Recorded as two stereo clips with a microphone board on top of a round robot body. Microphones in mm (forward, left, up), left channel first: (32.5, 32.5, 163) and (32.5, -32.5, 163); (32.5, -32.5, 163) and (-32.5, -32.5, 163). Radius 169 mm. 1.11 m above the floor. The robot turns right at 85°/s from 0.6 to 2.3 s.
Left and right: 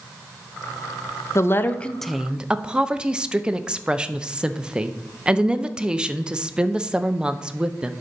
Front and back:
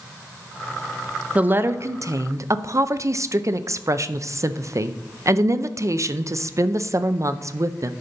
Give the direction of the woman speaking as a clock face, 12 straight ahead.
8 o'clock.